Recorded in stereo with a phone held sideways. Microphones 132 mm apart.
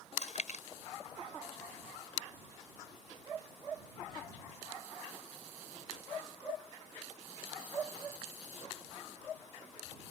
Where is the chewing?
65° left (ahead or behind).